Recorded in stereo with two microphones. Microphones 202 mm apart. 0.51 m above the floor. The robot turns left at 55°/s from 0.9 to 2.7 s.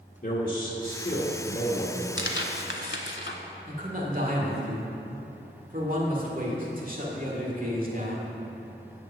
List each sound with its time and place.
0.2 s a man speaking: 90° left, 1.1 m; by 2.1 s 25° left, 1.1 m
2.2 s tearing paper: 70° left (ahead or behind), 0.9 m
3.7 s a man speaking: 45° right (ahead or behind), 1.7 m